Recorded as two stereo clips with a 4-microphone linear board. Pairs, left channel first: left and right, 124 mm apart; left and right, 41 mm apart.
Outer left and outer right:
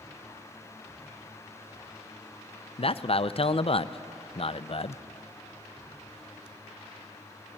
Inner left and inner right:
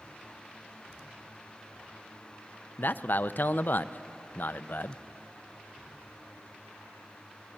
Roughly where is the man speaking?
Left.